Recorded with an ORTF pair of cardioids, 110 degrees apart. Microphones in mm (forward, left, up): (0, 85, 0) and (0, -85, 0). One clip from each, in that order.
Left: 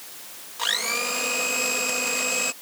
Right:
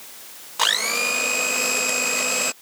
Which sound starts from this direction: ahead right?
A blender, at 0.6 s.